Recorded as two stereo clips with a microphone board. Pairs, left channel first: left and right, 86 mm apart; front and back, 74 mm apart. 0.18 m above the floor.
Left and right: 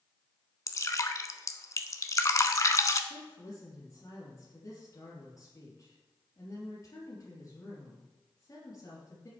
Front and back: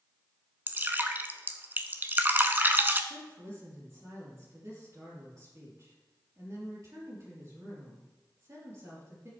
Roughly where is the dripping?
Behind left.